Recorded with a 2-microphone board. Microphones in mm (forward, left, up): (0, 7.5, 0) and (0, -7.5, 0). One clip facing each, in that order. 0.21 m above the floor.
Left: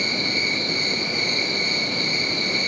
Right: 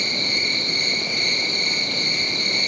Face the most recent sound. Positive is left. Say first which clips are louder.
# right 1 dB
turn(degrees=-60)  # may be behind; listen again after turning